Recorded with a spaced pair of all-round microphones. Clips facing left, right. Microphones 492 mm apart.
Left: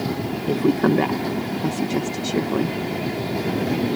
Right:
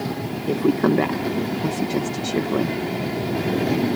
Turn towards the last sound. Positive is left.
turn(degrees=0)  # may be behind; listen again after turning